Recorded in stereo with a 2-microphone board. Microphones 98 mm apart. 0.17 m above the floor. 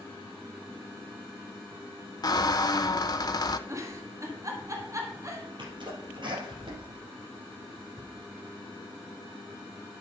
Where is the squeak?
40° left (ahead or behind), 0.6 m.